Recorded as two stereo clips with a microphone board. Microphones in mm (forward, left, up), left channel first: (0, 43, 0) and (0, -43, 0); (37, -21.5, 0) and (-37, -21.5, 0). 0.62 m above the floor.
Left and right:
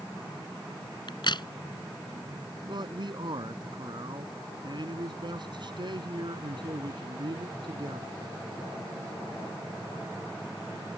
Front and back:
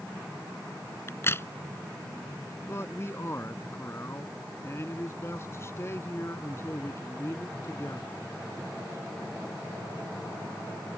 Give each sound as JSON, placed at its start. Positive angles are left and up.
{"t": 1.1, "sound": "a crack", "azimuth_deg": 55}
{"t": 2.6, "sound": "a man speaking", "azimuth_deg": -55}